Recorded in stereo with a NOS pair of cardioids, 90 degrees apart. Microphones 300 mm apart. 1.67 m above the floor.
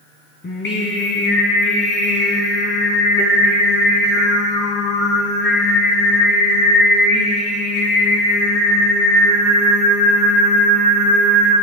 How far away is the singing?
About 4.5 m.